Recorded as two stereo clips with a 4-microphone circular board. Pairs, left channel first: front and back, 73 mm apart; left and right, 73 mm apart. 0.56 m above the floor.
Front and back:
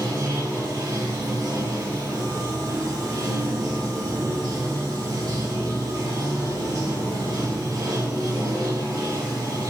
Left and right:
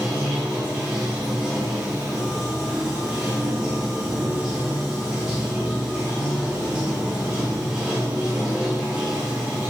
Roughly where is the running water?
Behind.